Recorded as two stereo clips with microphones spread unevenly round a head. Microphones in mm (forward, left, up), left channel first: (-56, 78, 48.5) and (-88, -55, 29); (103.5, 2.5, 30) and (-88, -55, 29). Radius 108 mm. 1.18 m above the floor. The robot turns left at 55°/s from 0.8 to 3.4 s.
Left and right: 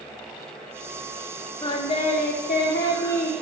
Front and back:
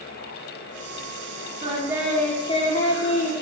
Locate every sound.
1.6 s singing: 135° left, 2.5 m; by 3.3 s 40° left, 2.5 m